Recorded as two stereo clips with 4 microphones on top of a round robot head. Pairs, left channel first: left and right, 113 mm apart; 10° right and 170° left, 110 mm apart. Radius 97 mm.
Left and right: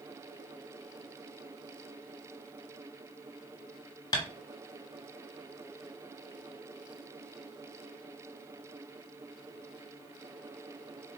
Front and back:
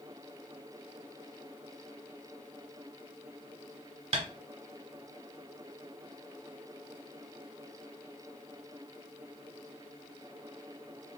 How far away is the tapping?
About 1.3 m.